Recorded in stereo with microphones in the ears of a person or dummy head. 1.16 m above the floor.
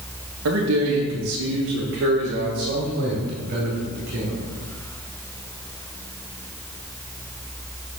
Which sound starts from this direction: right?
A man speaking, at 0.5 s.